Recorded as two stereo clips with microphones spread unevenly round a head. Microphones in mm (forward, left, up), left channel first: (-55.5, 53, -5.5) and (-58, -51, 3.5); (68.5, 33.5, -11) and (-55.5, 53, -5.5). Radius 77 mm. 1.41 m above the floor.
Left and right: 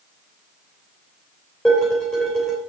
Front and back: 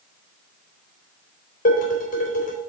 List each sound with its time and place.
1.6 s dishes clattering: 5° left, 3.5 m